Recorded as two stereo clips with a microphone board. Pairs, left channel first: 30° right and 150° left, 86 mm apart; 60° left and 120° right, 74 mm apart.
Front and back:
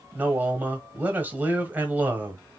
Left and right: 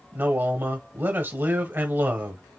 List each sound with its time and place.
0.1 s a man speaking: 155° right, 1.3 m